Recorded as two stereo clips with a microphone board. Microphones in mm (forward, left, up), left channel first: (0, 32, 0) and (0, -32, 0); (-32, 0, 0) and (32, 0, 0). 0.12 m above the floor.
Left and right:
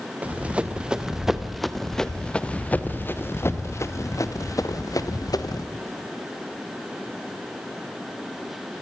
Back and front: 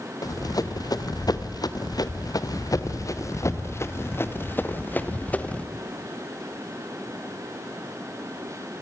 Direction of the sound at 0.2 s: 160° right.